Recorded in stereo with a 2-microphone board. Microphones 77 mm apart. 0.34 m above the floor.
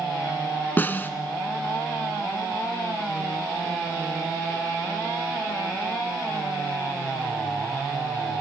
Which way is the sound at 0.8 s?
25° left (ahead or behind).